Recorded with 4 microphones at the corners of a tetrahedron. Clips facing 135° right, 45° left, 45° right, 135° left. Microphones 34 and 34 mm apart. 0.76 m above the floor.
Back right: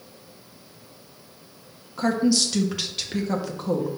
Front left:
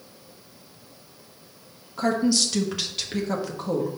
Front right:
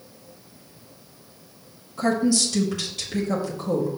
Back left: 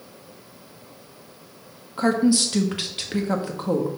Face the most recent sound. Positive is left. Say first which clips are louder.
# back right 1 dB, back left 2 dB
turn(degrees=135)